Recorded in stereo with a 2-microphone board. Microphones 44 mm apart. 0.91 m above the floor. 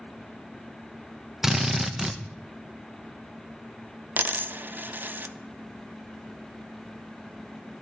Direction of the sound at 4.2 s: 45° right (ahead or behind).